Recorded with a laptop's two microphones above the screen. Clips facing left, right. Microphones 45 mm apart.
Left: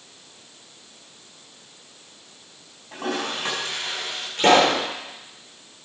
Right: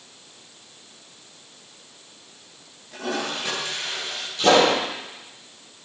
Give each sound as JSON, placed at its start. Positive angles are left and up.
{"t": 2.9, "sound": "a toilet flushing", "side_deg": 40, "distance_m": 5.5}
{"t": 4.4, "sound": "a pop", "side_deg": 50, "distance_m": 7.0}